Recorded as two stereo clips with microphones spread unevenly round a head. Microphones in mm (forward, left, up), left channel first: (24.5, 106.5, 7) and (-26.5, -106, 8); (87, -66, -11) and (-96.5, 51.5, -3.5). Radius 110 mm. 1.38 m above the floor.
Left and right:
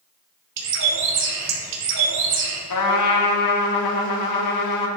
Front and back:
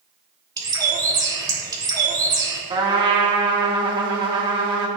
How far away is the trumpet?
About 1.9 m.